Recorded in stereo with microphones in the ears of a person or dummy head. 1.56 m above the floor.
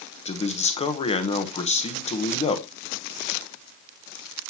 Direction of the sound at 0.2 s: 35° left (ahead or behind).